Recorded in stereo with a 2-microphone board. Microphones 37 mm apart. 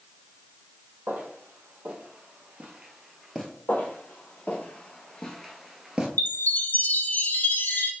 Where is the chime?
55° left (ahead or behind), 0.5 m.